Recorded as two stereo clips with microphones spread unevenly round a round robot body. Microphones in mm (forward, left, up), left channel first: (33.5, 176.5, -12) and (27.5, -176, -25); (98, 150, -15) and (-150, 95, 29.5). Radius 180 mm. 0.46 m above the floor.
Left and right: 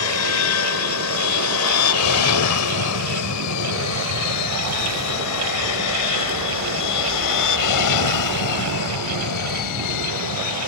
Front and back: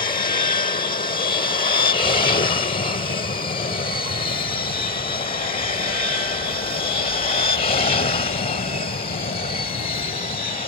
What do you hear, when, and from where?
0.0 s an aircraft: 65° left; by 10.7 s 70° left